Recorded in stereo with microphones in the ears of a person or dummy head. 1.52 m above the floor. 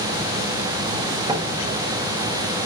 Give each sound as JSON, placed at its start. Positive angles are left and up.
{"t": 1.3, "sound": "a door slam", "side_deg": -20, "distance_m": 3.0}